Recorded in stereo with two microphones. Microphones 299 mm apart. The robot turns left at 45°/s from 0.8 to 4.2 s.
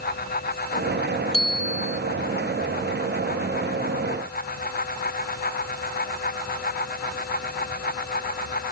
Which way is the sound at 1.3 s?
50° left (ahead or behind).